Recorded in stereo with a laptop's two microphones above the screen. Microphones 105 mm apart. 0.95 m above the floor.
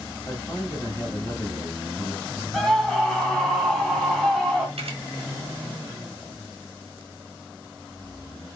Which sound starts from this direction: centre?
A scream, at 2.5 s.